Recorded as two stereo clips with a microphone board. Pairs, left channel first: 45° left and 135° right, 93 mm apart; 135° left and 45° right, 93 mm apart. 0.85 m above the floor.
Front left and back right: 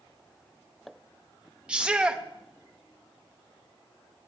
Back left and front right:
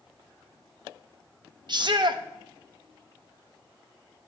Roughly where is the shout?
Ahead right.